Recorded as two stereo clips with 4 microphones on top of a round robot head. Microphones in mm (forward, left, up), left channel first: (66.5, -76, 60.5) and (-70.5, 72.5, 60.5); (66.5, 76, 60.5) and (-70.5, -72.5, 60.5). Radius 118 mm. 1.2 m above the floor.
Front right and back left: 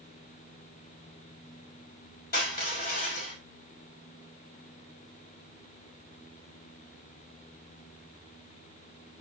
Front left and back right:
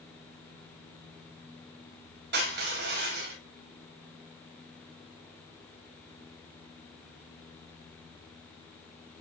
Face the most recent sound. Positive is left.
turn(degrees=-100)